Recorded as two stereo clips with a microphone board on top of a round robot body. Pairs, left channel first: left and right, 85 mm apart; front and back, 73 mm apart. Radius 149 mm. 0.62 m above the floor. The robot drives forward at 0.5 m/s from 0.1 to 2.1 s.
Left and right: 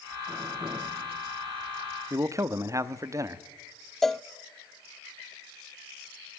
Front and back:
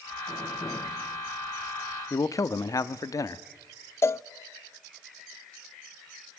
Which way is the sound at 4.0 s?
5° left.